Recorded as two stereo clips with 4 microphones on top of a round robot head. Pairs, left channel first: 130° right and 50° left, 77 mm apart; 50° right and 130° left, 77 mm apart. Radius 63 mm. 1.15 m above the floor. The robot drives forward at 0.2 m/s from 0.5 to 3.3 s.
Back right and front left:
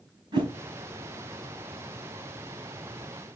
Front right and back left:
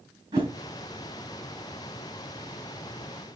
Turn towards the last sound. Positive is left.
turn(degrees=105)